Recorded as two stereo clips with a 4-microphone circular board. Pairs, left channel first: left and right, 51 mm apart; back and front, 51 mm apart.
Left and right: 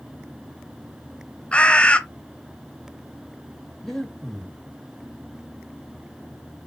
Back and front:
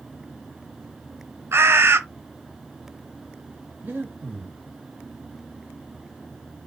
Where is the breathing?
10° left, 1.1 m.